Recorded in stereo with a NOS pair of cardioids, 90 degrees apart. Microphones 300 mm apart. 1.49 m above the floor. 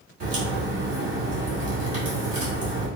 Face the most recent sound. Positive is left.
turn(degrees=-50)